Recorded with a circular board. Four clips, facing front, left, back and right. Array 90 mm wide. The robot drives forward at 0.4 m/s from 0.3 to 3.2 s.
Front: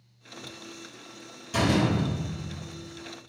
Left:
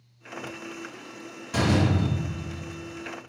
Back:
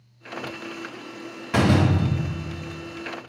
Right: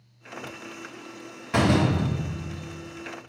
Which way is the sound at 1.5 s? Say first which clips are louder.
Right 2 dB, back 4 dB; 155° right.